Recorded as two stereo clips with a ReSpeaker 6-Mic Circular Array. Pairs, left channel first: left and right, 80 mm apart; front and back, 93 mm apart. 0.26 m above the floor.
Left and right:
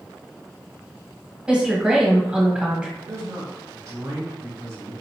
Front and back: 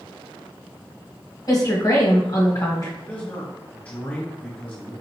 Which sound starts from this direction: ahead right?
A man speaking, at 3.0 s.